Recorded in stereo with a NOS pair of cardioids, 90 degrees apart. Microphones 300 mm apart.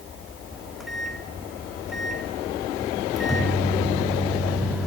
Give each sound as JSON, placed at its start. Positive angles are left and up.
{"t": 0.5, "sound": "a microwave", "azimuth_deg": 0, "distance_m": 1.9}